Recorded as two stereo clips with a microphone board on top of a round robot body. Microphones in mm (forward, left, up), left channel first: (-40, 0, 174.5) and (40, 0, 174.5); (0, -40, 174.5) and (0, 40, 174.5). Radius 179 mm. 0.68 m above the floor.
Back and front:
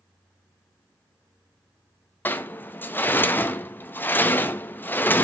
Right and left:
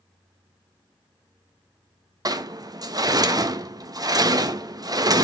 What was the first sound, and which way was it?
A sliding door, 115° left.